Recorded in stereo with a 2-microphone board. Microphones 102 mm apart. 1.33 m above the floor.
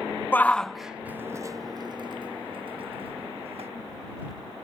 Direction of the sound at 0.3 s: 20° left (ahead or behind).